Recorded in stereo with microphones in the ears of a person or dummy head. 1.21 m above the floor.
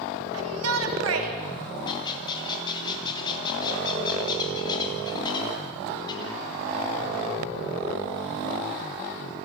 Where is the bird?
25° left (ahead or behind), 4 m.